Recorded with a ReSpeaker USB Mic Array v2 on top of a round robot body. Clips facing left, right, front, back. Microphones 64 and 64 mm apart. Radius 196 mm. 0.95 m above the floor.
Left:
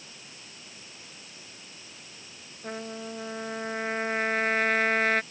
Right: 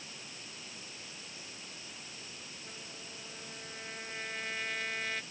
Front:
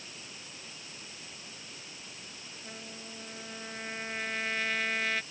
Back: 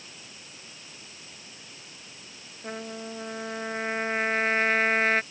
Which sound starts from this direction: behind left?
A trumpet, at 2.6 s.